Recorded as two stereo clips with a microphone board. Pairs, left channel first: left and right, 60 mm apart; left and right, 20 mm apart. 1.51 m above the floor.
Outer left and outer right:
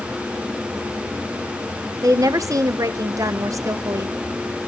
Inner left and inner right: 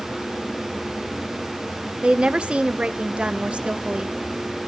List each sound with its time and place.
2.0 s a woman speaking: 70° right (ahead or behind), 1.0 m